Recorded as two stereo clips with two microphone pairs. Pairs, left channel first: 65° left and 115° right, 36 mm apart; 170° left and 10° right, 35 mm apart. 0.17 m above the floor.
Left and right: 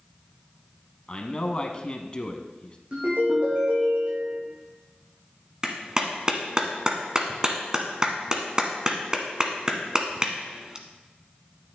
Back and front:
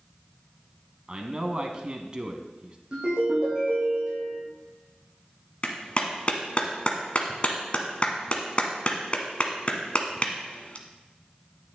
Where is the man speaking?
25° left, 1.3 m.